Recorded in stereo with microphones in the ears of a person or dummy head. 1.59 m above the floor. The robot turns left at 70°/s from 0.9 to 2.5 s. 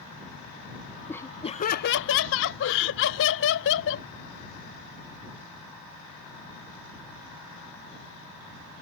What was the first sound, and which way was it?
Laughter, straight behind.